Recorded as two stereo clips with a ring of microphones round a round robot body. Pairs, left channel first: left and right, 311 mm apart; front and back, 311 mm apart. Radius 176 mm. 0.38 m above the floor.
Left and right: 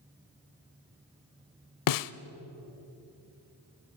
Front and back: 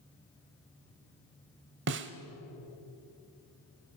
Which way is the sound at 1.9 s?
120° left.